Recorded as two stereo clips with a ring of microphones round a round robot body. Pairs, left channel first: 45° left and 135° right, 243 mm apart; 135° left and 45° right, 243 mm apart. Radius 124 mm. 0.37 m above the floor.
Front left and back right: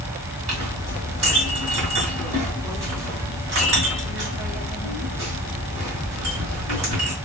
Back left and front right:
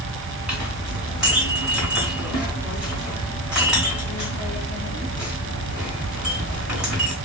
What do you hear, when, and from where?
0.5 s a clink: 130° right, 2.5 m